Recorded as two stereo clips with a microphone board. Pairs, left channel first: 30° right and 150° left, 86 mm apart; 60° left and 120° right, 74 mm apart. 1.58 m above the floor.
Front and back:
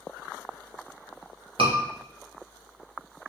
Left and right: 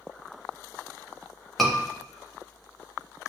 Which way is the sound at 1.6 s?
150° left.